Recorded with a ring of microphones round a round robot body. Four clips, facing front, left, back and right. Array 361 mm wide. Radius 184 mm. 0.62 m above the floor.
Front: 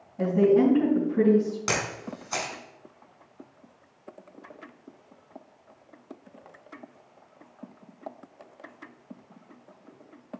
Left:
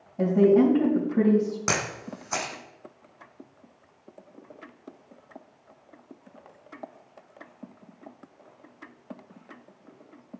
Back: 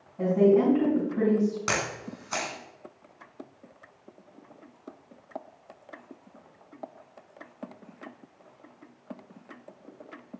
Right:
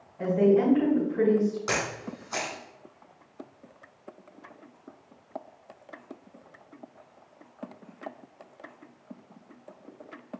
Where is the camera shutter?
100° left, 2.5 m.